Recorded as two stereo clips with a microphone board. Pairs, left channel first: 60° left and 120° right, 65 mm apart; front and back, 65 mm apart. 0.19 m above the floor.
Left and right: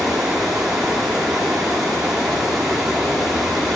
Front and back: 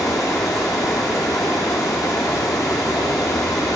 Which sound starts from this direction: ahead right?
Running water, at 0.0 s.